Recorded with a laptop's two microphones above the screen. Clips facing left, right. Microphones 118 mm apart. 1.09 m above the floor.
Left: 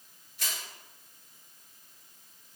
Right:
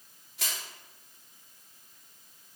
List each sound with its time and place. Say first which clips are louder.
0.4 s crushing: right 1 dB; 80° right, 2.5 m